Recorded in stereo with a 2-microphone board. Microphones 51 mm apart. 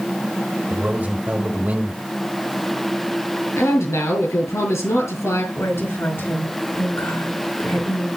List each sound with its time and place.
0.7 s a man speaking: 35° right (ahead or behind), 1.7 m
3.6 s a man speaking: 75° left (ahead or behind), 3.5 m
5.5 s a woman speaking: 55° left (ahead or behind), 5.5 m